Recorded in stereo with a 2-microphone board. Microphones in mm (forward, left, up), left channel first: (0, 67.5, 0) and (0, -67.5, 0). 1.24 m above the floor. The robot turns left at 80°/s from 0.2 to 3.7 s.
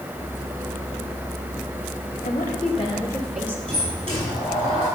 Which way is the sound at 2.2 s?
85° left.